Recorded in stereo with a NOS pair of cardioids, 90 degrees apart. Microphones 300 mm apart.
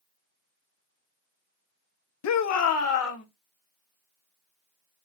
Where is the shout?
65° left, 0.7 m; by 3.2 s 50° left, 1.4 m.